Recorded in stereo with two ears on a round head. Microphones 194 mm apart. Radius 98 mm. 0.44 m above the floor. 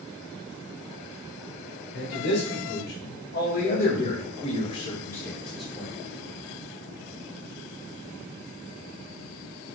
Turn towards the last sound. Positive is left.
turn(degrees=-10)  # may be behind; listen again after turning